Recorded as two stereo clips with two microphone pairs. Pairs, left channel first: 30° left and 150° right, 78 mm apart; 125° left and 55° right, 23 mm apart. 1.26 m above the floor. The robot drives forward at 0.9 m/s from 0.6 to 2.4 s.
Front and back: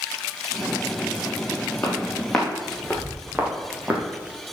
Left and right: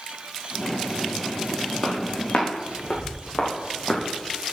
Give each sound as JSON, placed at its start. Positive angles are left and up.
{"t": 1.8, "sound": "footsteps", "azimuth_deg": 95, "distance_m": 4.0}